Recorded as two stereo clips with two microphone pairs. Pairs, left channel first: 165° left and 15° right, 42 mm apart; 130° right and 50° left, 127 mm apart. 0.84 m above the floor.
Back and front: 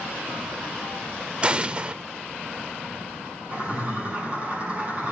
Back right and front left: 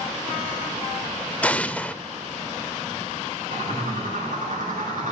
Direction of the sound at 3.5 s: 40° left.